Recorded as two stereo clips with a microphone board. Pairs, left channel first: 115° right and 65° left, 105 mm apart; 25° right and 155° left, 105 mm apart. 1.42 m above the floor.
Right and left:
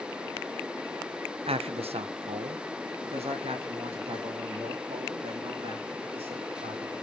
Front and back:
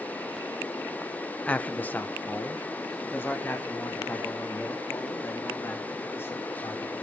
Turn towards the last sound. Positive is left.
turn(degrees=45)